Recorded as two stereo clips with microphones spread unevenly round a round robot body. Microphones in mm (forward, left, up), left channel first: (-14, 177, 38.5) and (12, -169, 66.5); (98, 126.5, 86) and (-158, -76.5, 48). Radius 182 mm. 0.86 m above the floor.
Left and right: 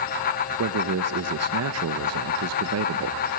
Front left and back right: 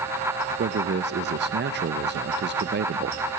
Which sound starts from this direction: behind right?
A man speaking, at 0.6 s.